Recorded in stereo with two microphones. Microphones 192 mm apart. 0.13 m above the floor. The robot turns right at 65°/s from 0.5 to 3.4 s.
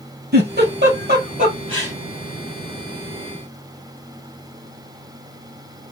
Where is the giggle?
60° right (ahead or behind), 3 m; by 1.9 s 15° right (ahead or behind), 3 m.